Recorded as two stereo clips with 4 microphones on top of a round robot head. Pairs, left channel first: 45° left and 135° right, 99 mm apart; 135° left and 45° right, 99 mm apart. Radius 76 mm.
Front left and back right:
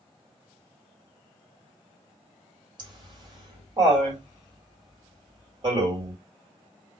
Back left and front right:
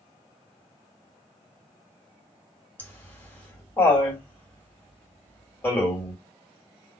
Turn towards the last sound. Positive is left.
turn(degrees=-155)